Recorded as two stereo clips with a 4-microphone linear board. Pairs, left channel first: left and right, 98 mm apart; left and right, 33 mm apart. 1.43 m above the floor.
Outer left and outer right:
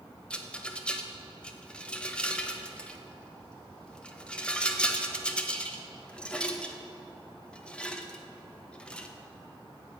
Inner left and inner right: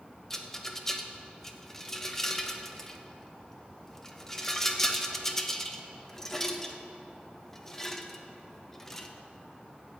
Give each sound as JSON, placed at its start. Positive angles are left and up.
{"t": 0.3, "sound": "a rattle", "side_deg": 10, "distance_m": 0.7}